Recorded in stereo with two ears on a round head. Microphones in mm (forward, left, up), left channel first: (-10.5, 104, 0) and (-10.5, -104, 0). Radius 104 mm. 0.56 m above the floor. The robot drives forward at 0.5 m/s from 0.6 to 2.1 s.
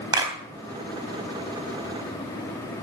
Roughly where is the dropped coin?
I don't hear a dropped coin.